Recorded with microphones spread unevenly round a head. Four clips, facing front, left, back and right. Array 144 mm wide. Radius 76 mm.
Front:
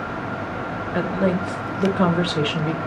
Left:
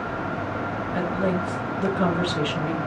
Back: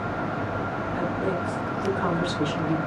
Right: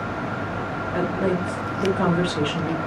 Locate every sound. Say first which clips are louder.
0.9 s a woman speaking: right 2 dB, front 7 dB; 10° right, 4 m